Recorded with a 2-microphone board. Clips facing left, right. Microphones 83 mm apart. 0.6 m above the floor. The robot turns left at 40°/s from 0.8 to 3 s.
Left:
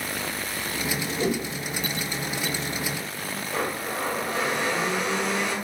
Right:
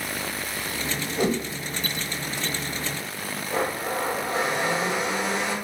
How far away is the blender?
About 2 m.